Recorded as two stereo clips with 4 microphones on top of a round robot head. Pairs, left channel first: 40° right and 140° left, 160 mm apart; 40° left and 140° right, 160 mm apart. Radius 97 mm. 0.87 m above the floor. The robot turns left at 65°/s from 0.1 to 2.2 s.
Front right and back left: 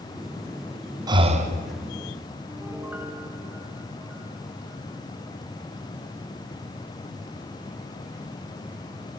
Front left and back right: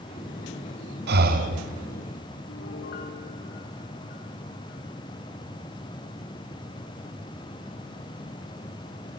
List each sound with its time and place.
1.1 s breathing: 155° right, 1.7 m; by 1.6 s 170° left, 1.7 m
2.5 s a piano: 60° left, 3 m